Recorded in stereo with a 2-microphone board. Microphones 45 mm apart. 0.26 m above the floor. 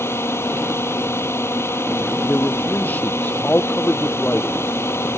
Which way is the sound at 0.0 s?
70° left (ahead or behind).